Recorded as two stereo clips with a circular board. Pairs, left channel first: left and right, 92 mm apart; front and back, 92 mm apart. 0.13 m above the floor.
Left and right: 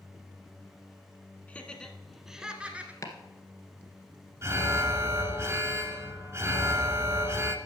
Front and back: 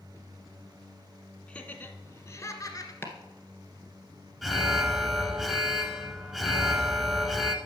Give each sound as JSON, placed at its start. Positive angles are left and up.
{"t": 1.5, "sound": "laughter", "azimuth_deg": 55, "distance_m": 1.1}
{"t": 3.0, "sound": "chopping", "azimuth_deg": 55, "distance_m": 1.6}
{"t": 4.4, "sound": "an alarm", "azimuth_deg": -95, "distance_m": 1.1}